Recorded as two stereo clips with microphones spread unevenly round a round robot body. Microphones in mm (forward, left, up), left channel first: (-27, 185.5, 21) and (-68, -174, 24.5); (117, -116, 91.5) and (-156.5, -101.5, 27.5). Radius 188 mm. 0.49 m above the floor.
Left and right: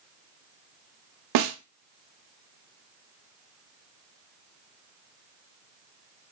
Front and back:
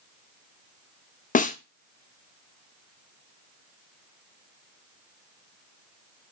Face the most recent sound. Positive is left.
turn(degrees=-75)